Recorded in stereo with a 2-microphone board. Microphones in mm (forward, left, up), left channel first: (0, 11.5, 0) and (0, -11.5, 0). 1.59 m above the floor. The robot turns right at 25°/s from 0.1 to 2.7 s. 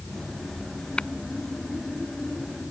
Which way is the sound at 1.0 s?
45° left (ahead or behind).